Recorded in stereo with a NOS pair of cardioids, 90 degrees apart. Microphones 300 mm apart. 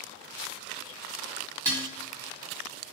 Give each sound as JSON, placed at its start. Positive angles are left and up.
{"t": 1.6, "sound": "dishes clattering", "azimuth_deg": -10, "distance_m": 1.1}